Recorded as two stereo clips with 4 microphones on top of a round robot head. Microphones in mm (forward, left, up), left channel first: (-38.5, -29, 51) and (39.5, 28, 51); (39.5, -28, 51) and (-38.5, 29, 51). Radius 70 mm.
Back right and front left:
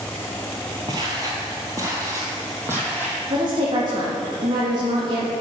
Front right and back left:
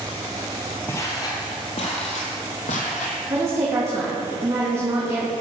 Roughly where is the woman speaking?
Left.